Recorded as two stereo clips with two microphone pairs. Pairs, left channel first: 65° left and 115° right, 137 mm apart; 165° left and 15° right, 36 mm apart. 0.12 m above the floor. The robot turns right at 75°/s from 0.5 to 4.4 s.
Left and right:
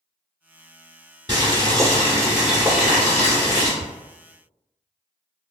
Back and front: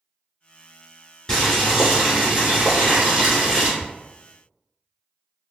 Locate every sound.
1.3 s boiling: 120° right, 1.9 m; by 3.7 s 60° left, 1.9 m
3.8 s ticking: 70° left, 1.8 m; by 3.8 s 75° left, 1.8 m